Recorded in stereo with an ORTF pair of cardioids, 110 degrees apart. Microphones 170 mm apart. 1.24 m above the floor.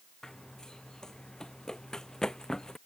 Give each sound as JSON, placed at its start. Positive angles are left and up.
{"t": 0.2, "sound": "running footsteps", "azimuth_deg": 5}